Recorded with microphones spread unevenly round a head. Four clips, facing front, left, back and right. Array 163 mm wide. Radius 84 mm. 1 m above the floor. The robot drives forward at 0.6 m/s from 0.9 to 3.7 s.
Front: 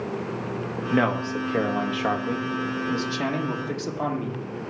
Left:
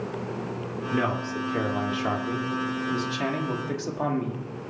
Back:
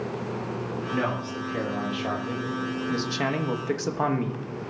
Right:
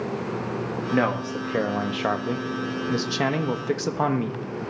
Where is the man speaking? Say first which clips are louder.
Right 3 dB, front 7 dB; 45° right, 1.9 m; by 4.4 s 110° right, 1.4 m.